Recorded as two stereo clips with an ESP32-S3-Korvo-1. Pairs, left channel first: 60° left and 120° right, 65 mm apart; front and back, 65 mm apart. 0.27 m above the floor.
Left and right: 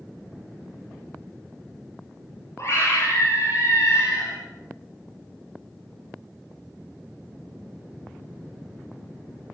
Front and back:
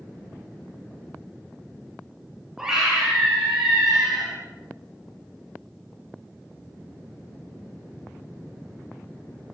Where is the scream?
95° left, 9 m; by 4.3 s 90° left, 9 m.